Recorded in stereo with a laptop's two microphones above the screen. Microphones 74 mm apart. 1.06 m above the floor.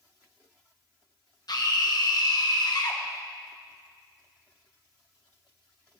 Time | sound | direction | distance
1.5 | a scream | 65° left (ahead or behind) | 0.9 m